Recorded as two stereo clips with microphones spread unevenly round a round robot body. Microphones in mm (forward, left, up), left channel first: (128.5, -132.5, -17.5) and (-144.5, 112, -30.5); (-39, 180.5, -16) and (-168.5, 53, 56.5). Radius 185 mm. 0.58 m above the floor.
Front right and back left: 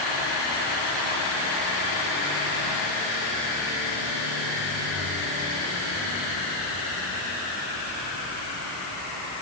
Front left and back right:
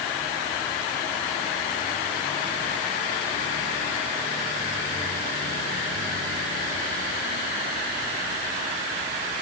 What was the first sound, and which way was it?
Only background noise.